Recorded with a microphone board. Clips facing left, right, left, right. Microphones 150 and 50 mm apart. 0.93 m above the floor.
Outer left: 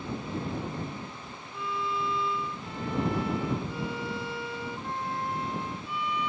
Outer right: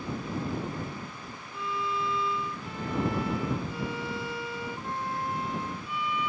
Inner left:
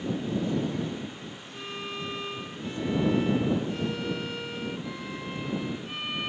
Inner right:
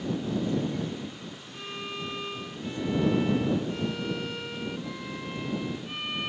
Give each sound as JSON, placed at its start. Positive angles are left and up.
{"t": 1.5, "sound": "a violin", "side_deg": 0}